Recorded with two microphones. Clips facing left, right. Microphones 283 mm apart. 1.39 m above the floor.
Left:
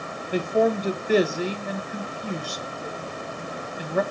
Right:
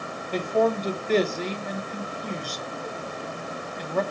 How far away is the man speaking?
About 1.3 m.